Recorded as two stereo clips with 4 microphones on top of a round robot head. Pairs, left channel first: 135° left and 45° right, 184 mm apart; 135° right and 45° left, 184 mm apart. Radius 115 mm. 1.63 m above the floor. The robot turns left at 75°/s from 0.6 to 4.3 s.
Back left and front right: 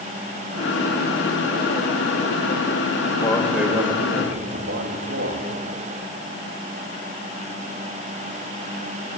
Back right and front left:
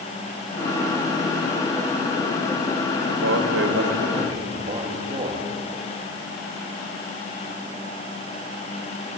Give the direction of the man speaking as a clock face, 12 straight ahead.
10 o'clock.